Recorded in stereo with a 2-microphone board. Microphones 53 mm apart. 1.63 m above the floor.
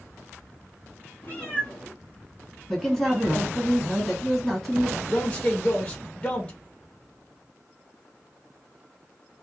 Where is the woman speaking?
Centre (ahead or behind), 1.4 m.